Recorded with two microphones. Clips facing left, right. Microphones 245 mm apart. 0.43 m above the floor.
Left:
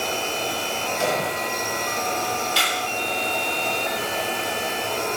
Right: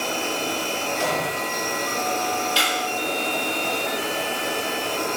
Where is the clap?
55° left (ahead or behind), 1.1 m.